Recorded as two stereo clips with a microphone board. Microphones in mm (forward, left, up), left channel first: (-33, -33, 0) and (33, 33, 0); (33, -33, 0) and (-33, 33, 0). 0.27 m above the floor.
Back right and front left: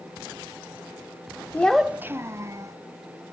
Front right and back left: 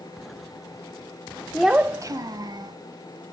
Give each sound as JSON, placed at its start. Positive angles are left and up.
{"t": 1.5, "sound": "a child speaking", "azimuth_deg": -115, "distance_m": 0.5}